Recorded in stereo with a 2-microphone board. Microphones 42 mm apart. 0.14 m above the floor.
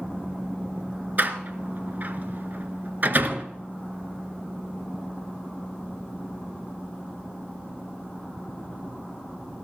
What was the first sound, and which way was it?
A door slam, 45° right (ahead or behind).